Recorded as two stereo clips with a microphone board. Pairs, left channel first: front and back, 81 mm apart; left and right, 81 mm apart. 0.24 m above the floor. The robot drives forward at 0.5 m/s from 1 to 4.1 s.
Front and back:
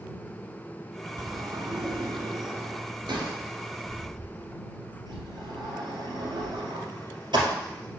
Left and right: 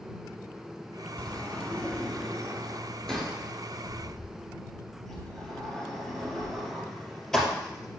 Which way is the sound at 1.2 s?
160° left.